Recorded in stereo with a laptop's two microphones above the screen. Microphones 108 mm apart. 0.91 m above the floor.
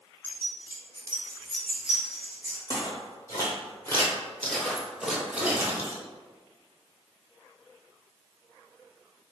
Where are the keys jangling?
60° left (ahead or behind), 0.8 m; by 2.6 s 20° right (ahead or behind), 1.2 m.